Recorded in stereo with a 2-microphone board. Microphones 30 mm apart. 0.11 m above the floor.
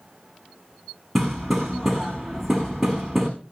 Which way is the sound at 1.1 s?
5° left (ahead or behind).